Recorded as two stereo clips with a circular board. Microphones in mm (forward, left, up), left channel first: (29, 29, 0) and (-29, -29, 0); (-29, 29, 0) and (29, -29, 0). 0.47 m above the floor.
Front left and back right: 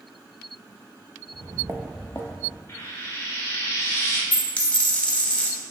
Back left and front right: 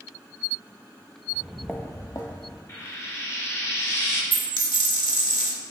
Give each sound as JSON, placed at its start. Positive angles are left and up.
{"t": 1.3, "sound": "footsteps", "azimuth_deg": -115, "distance_m": 0.9}
{"t": 2.7, "sound": "frying", "azimuth_deg": 90, "distance_m": 0.9}
{"t": 4.3, "sound": "a dropped coin", "azimuth_deg": 115, "distance_m": 0.8}